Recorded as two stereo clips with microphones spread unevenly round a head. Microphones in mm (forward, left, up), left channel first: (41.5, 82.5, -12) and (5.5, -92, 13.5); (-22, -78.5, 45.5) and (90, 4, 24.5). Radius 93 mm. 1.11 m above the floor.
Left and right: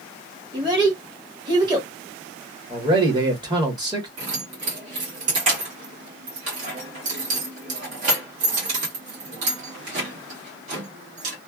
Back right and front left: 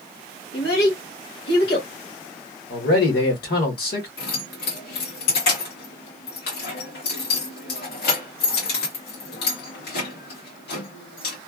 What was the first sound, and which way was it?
A child speaking, 170° right.